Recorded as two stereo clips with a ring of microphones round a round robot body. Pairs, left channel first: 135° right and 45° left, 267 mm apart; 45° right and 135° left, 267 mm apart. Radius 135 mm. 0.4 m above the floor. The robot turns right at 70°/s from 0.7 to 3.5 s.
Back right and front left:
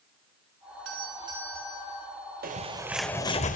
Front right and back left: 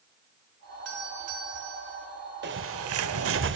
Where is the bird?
95° left, 1.4 m; by 3.6 s 170° left, 1.4 m.